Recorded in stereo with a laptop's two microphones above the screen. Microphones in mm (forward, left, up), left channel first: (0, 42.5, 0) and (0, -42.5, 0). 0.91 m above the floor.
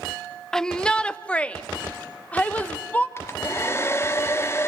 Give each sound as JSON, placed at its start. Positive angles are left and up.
{"t": 0.5, "sound": "a shout", "side_deg": 5, "distance_m": 0.7}
{"t": 3.2, "sound": "a hair dryer", "side_deg": 30, "distance_m": 0.8}